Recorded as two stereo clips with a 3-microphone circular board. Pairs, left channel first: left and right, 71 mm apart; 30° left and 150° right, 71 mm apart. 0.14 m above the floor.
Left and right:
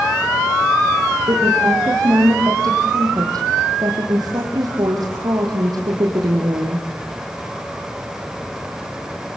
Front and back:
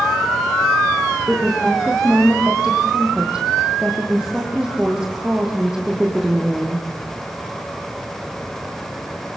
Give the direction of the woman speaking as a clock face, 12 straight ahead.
2 o'clock.